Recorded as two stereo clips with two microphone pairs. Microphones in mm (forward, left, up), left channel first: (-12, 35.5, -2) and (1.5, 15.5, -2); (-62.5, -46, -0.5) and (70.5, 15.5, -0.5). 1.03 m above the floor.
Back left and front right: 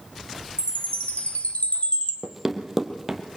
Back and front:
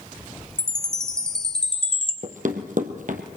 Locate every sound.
0.6 s a chime: 120° left, 2.5 m
2.2 s running footsteps: 30° left, 2.0 m